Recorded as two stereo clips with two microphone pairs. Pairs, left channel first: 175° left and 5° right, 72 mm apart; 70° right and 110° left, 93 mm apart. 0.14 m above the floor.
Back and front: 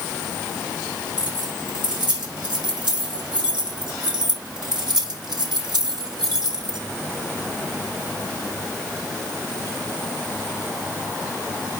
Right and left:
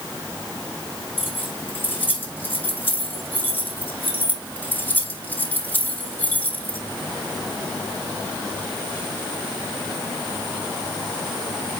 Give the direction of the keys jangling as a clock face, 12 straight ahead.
12 o'clock.